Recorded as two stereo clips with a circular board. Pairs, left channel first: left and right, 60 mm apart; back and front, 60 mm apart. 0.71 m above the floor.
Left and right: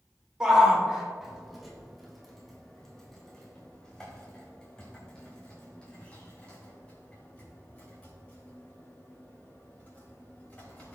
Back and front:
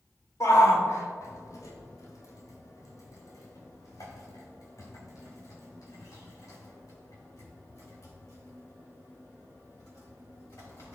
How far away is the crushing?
No crushing in this recording.